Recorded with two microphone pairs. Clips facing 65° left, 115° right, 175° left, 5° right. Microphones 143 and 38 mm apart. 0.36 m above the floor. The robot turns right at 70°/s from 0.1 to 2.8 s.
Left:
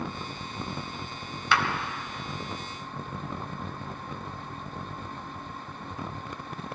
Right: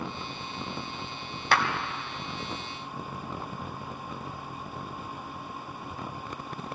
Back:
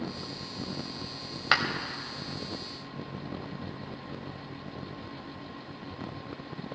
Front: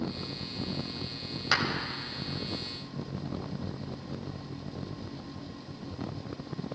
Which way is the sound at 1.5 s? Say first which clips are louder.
Right 1 dB, back 3 dB; 140° right.